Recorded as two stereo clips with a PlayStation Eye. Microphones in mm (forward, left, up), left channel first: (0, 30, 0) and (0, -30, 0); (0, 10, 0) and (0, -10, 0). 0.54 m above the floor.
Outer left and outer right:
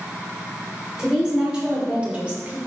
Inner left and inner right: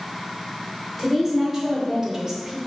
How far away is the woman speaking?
About 2 m.